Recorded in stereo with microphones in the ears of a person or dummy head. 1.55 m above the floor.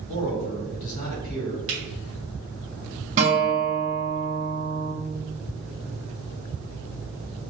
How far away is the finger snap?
About 1.3 m.